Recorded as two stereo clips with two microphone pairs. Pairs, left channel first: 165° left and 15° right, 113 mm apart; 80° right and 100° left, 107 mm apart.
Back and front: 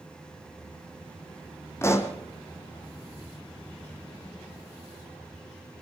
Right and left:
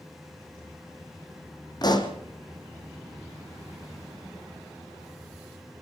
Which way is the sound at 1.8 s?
130° right.